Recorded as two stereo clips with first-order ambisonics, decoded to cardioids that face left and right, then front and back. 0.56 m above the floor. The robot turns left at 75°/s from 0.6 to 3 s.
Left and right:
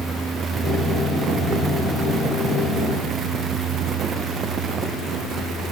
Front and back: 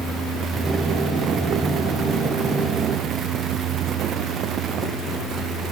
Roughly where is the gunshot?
I don't hear a gunshot.